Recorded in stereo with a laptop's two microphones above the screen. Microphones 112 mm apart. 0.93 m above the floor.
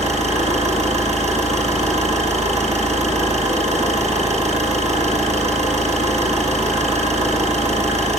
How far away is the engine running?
About 8 m.